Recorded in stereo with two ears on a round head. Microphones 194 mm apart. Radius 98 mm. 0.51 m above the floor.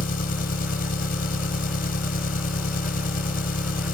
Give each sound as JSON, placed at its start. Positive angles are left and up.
{"t": 0.0, "sound": "an engine running", "side_deg": 45}